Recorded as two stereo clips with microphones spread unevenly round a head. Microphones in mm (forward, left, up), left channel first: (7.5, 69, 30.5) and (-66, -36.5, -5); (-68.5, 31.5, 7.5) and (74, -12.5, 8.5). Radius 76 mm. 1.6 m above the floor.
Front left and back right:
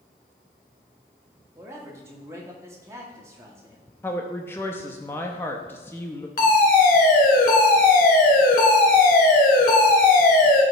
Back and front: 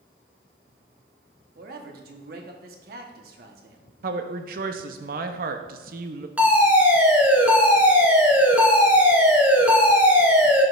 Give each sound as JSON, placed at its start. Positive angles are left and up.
{"t": 1.6, "sound": "a man speaking", "azimuth_deg": -45, "distance_m": 1.1}
{"t": 4.0, "sound": "a woman speaking", "azimuth_deg": -10, "distance_m": 0.6}
{"t": 6.4, "sound": "a fire alarm", "azimuth_deg": 65, "distance_m": 1.4}